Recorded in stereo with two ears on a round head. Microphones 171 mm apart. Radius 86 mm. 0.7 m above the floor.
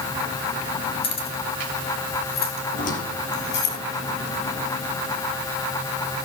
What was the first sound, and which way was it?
Keys jangling, 30° left (ahead or behind).